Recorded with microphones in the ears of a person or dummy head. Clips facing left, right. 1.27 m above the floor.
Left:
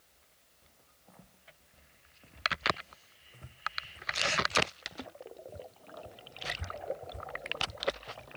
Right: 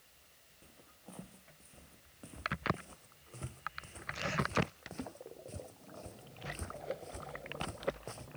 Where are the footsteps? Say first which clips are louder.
Right 8 dB; 45° right (ahead or behind); by 8.3 s 70° right (ahead or behind).